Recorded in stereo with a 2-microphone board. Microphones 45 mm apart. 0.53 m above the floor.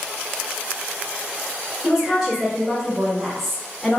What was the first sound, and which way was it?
A woman speaking, 5° right (ahead or behind).